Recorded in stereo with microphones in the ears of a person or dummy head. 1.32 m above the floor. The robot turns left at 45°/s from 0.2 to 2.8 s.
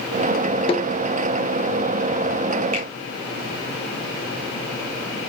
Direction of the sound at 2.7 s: 45° right (ahead or behind).